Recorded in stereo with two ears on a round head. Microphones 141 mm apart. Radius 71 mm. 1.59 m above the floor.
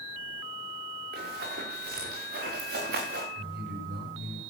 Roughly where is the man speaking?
Right.